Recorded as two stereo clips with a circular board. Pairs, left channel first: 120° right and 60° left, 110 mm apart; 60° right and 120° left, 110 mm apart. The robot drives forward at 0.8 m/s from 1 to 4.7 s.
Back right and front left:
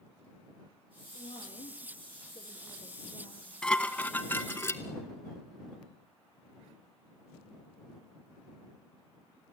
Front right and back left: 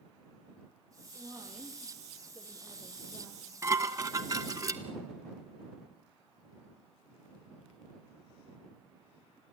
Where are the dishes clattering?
160° left, 0.8 m; by 4.8 s 175° left, 1.5 m.